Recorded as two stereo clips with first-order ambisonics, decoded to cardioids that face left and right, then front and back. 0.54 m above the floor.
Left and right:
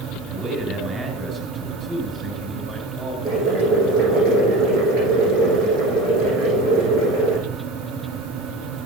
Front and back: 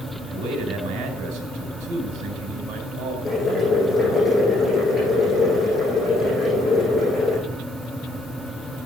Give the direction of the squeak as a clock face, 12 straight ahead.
I don't hear a squeak.